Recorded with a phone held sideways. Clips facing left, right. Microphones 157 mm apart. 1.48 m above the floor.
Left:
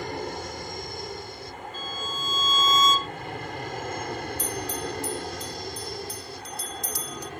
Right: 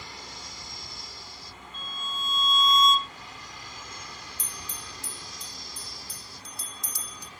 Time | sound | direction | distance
0.0 | an aircraft | 60° left (ahead or behind) | ?
1.7 | a violin | 5° left (ahead or behind) | ?
4.4 | a bell | 65° left (ahead or behind) | ?